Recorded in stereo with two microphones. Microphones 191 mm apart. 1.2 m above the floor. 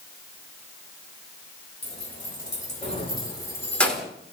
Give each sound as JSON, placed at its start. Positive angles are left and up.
{"t": 1.8, "sound": "keys jangling", "side_deg": 55, "distance_m": 3.5}